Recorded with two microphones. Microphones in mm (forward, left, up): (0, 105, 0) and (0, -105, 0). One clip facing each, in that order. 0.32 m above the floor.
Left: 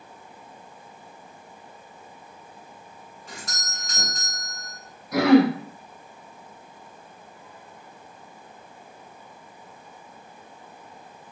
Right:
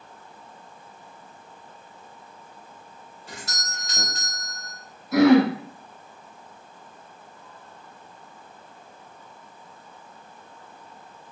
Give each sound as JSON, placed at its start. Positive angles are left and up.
{"t": 3.3, "sound": "a doorbell", "side_deg": -30, "distance_m": 1.6}
{"t": 5.1, "sound": "throat clearing", "side_deg": 0, "distance_m": 1.1}